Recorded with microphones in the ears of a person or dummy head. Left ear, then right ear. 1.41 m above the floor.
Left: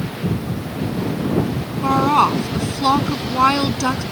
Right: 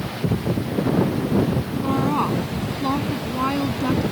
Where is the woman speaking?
60° left (ahead or behind).